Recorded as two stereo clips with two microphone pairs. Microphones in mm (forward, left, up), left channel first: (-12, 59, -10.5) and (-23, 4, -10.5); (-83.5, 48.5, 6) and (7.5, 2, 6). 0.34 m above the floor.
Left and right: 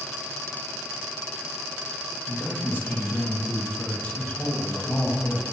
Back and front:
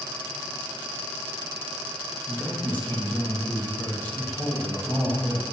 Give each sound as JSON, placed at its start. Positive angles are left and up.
{"t": 2.3, "sound": "a man speaking", "azimuth_deg": 95, "distance_m": 1.6}